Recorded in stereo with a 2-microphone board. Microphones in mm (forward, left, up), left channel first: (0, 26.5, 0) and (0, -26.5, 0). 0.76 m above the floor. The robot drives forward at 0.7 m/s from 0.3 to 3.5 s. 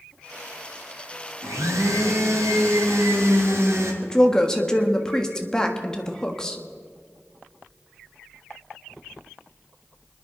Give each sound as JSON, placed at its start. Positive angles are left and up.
{"t": 1.4, "sound": "a blender", "side_deg": -85, "distance_m": 2.5}
{"t": 4.0, "sound": "a woman speaking", "side_deg": 15, "distance_m": 1.5}